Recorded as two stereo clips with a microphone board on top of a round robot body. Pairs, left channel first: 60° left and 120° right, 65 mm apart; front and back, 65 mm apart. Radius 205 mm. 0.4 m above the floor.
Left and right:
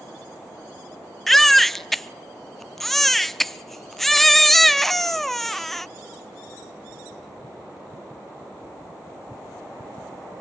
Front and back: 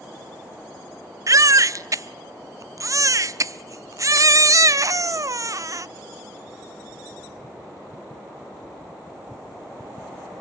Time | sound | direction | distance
1.3 | a baby crying | 145° left | 0.6 m